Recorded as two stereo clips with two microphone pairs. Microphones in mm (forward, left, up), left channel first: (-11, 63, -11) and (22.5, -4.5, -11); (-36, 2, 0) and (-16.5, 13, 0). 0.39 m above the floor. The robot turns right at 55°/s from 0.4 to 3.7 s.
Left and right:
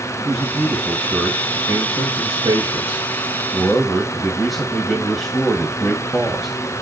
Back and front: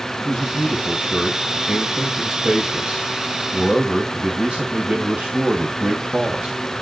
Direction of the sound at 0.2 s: 150° right.